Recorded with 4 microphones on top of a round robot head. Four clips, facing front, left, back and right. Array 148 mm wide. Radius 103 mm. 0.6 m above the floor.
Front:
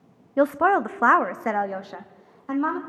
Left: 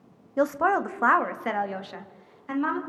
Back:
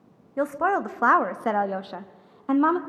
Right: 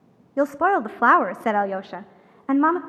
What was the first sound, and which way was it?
A woman speaking, 30° right.